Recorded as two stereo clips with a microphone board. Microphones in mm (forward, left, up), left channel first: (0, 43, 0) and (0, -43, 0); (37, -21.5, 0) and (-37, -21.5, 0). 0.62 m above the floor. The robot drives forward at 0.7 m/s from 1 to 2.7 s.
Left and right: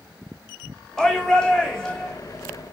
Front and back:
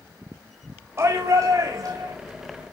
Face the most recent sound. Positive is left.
turn(degrees=175)